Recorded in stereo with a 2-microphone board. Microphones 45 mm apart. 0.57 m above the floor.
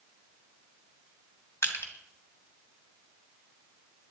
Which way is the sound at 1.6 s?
80° left.